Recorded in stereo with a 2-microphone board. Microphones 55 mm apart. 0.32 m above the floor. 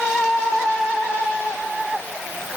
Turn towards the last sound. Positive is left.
No sound to turn to.